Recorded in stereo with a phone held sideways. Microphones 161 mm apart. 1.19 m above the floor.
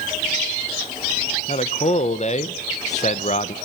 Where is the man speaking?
45° left (ahead or behind), 1.0 m.